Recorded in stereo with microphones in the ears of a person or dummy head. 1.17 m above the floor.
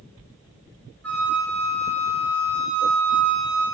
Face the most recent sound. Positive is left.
turn(degrees=5)  # may be behind; listen again after turning